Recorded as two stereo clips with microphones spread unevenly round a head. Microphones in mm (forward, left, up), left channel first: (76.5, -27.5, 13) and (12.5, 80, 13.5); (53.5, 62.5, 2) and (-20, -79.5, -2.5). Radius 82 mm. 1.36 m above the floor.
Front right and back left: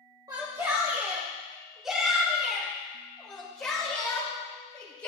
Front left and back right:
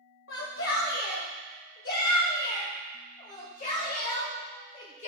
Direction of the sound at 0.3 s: 60° left.